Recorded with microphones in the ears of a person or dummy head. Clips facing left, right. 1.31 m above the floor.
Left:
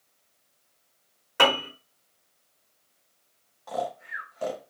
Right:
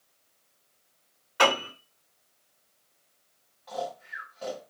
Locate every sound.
1.4 s a piano: 55° left (ahead or behind), 1.2 m
3.7 s snoring: 60° left (ahead or behind), 0.7 m